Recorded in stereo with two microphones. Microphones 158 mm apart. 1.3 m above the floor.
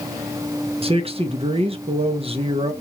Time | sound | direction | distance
0.8 | a man speaking | 35° right (ahead or behind) | 0.8 m